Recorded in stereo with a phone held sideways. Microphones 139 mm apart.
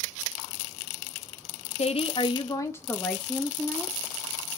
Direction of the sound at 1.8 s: 50° left (ahead or behind).